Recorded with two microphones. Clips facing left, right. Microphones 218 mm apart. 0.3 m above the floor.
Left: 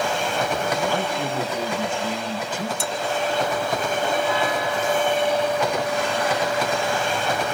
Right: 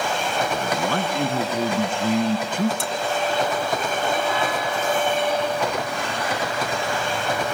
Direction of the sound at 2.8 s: 50° right (ahead or behind).